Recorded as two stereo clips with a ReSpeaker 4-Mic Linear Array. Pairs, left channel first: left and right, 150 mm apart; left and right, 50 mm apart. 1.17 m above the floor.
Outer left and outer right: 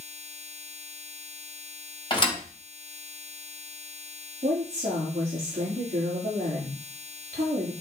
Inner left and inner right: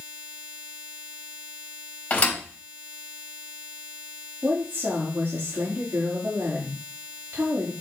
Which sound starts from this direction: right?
A woman speaking, at 4.4 s.